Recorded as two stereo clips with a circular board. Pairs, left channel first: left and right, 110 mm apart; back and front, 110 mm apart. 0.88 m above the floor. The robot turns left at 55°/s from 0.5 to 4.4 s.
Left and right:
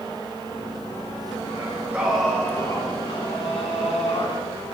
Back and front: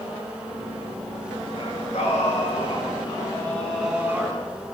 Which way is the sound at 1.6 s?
150° right.